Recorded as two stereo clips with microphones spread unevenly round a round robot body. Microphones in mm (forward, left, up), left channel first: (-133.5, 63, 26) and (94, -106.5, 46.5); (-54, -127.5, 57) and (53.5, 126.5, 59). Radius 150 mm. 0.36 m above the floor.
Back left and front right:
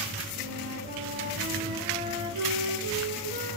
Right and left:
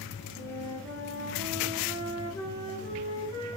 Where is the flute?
30° right, 5.5 m.